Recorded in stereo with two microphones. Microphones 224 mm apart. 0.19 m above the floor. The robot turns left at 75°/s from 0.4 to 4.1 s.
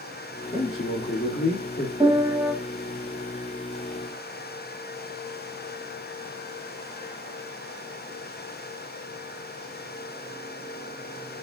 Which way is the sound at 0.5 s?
145° left.